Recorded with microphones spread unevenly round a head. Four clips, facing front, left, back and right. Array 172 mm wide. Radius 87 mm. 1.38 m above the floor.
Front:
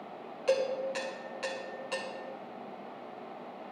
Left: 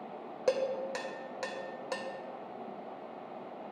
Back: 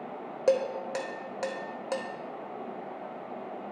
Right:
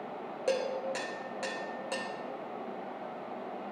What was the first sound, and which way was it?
Dishes clattering, 165° left.